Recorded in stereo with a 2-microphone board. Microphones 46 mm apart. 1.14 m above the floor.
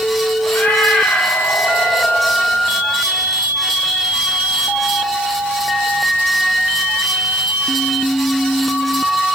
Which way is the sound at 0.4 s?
35° left (ahead or behind).